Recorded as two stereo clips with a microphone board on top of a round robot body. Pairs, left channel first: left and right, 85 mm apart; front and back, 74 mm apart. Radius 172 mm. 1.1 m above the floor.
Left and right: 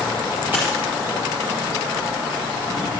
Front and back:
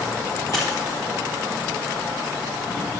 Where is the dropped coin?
25° right, 1.0 m.